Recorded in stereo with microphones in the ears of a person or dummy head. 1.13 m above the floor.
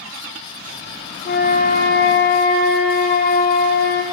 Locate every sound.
1.2 s a flute: 45° left (ahead or behind), 0.9 m